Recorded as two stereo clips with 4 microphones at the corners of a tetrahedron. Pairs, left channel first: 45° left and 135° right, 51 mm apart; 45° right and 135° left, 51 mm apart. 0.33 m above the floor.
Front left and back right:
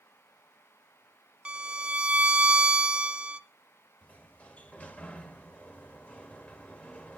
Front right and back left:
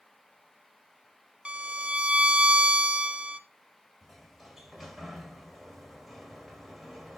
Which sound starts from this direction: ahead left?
A sliding door, at 4.0 s.